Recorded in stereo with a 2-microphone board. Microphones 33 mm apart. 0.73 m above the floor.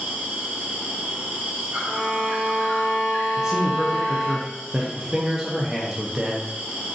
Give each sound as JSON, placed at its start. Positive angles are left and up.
{"t": 0.0, "sound": "an insect", "side_deg": -65, "distance_m": 1.1}
{"t": 1.9, "sound": "a violin", "side_deg": -20, "distance_m": 1.4}
{"t": 3.4, "sound": "a man speaking", "side_deg": -15, "distance_m": 0.5}